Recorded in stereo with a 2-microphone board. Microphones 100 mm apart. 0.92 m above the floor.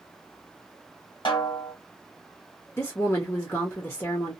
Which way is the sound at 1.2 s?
55° left (ahead or behind).